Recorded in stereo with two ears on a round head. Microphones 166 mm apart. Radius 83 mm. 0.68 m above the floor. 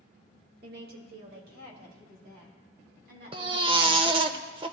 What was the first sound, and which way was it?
A woman speaking, 50° right (ahead or behind).